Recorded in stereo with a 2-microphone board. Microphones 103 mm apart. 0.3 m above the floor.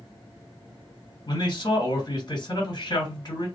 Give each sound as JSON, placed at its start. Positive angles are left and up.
{"t": 1.3, "sound": "a man speaking", "side_deg": 40, "distance_m": 1.9}